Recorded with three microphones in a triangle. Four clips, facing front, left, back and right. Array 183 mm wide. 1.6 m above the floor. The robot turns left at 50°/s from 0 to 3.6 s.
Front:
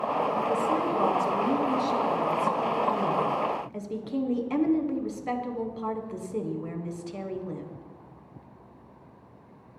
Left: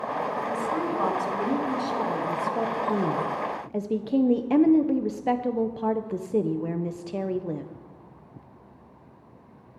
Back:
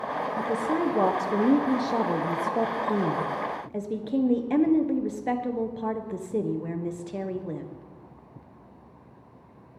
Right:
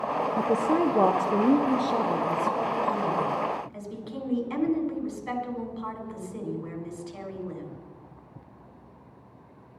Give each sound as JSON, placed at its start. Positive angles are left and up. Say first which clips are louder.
{"t": 0.4, "sound": "a woman speaking", "louder": "right 4 dB, front 1 dB", "azimuth_deg": -85, "distance_m": 0.9}